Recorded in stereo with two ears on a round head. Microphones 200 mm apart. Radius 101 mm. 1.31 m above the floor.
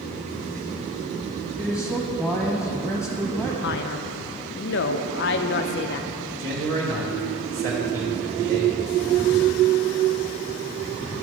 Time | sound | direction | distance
1.6 | a man speaking | 5° right (ahead or behind) | 0.9 m
3.6 | a man speaking | 50° left (ahead or behind) | 0.5 m
6.4 | a man speaking | 65° right (ahead or behind) | 1.2 m